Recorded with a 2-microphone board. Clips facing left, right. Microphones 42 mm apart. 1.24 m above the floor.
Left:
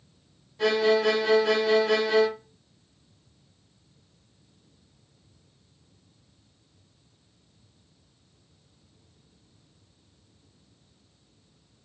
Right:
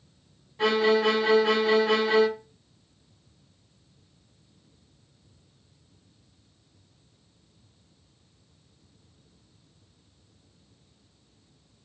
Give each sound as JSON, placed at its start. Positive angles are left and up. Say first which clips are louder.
{"t": 0.6, "sound": "a violin", "louder": "even", "side_deg": -25, "distance_m": 1.0}